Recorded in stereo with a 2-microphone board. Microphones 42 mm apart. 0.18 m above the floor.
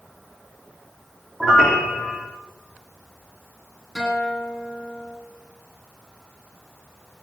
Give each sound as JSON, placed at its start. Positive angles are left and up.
{"t": 1.4, "sound": "a piano", "side_deg": 15, "distance_m": 3.5}
{"t": 4.0, "sound": "a guitar", "side_deg": 0, "distance_m": 8.5}